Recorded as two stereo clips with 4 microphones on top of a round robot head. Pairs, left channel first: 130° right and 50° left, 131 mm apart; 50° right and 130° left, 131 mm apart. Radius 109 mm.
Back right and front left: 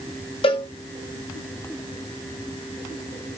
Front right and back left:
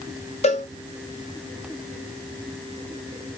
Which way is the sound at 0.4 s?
85° right.